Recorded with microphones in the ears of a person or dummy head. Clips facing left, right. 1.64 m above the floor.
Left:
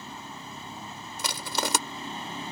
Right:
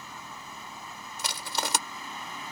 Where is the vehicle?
25° left (ahead or behind).